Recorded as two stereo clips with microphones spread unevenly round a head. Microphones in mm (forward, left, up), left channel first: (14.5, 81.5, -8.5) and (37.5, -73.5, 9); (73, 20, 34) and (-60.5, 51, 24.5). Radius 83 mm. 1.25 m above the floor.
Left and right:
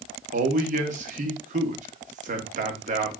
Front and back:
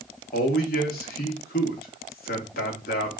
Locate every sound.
0.3 s a man speaking: 40° right, 0.9 m